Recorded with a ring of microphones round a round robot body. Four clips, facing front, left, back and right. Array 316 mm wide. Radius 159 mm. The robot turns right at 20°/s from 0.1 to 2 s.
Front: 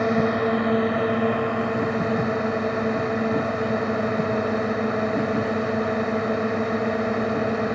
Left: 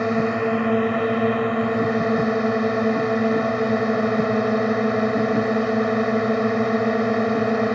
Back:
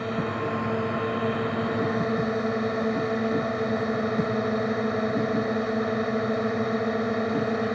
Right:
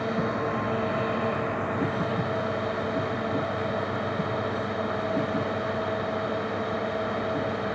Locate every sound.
0.0 s a drone: 50° left; by 7.8 s 85° left